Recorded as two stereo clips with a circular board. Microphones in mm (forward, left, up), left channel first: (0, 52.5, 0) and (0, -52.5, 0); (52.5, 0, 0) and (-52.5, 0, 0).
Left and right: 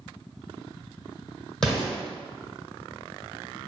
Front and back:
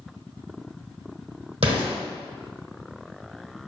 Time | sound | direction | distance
1.6 | an explosion | 175° left | 1.9 m